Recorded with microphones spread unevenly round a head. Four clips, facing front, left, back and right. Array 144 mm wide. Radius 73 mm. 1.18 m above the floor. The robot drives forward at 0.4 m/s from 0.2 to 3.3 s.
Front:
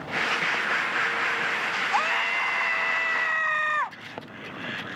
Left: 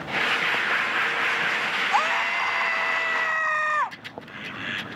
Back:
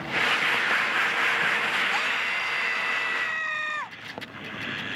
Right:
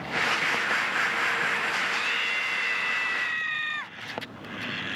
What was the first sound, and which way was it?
A scream, 65° left.